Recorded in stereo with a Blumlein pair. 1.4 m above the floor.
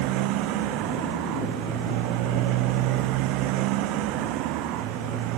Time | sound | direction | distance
0.0 | a motorcycle | 40° right | ?